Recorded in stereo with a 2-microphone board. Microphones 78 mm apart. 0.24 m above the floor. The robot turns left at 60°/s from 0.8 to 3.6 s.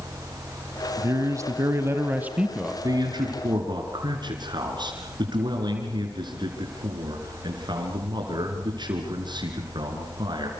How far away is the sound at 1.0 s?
About 1.3 m.